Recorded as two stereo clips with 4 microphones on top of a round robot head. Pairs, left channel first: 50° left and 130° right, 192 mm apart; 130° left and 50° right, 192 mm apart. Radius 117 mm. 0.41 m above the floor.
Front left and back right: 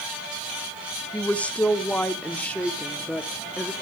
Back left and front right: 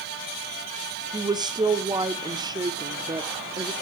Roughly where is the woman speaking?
Ahead right.